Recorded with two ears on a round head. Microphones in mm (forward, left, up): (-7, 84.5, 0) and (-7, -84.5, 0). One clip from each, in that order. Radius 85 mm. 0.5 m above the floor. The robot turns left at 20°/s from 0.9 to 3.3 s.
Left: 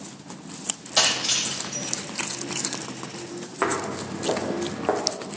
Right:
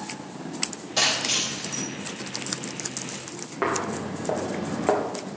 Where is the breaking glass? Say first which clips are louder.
Left 1 dB; 30° left (ahead or behind), 7 m; by 1.9 s 10° left (ahead or behind), 7 m.